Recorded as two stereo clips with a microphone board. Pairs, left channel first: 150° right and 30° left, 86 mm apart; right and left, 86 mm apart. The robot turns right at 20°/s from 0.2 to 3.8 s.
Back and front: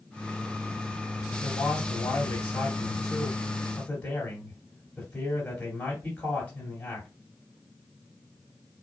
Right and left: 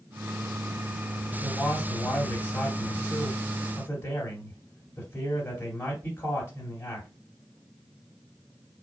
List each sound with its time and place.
1.4 s a man speaking: 150° right, 1.7 m; by 7.1 s 100° right, 1.7 m